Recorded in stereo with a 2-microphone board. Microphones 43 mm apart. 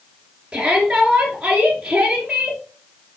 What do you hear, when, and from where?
0.5 s a shout: 10° right (ahead or behind), 1.9 m